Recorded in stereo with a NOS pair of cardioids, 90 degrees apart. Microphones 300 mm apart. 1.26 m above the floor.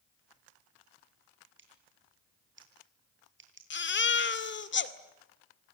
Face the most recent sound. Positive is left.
turn(degrees=40)